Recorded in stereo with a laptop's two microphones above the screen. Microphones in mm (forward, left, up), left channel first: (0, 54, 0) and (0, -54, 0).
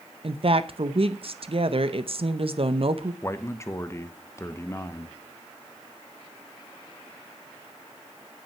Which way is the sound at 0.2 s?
55° right (ahead or behind).